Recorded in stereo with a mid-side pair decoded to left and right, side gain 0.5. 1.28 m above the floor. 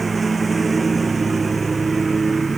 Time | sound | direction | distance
0.0 | a lawn mower | 20° right | ?